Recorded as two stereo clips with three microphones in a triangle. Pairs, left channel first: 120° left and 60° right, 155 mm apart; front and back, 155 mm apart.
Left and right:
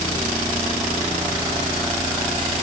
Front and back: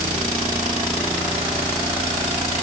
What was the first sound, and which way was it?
Only background noise.